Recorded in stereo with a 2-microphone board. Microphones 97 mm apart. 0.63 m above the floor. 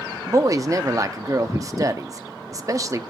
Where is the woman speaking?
35° right (ahead or behind), 0.6 m.